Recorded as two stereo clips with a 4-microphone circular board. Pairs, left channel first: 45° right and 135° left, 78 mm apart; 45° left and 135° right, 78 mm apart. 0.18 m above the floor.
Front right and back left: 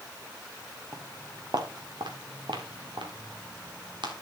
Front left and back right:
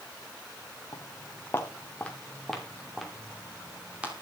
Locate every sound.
0.9 s footsteps: 90° left, 2.5 m; by 4.1 s 155° left, 4.5 m